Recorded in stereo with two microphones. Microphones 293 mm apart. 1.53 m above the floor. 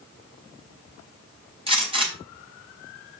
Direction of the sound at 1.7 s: 20° right (ahead or behind).